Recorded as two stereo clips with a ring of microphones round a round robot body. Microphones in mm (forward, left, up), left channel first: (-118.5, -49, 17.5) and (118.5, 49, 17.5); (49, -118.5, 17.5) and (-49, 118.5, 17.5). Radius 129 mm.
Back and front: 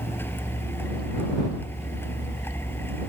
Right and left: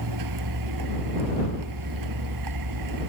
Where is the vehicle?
120° left.